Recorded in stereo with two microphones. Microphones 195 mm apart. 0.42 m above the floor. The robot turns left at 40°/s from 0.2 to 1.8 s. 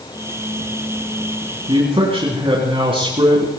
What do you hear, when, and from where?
1.7 s a man speaking: 25° right (ahead or behind), 3.5 m; by 3.5 s 30° right (ahead or behind), 3.5 m